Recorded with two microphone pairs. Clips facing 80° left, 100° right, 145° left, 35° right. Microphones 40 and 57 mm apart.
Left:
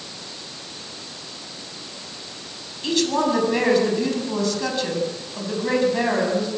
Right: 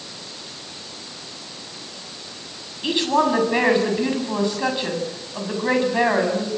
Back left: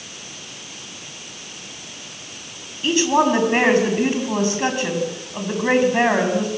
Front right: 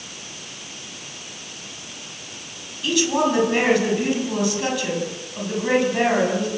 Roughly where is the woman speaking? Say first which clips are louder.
Right 2 dB, back left 3 dB; behind.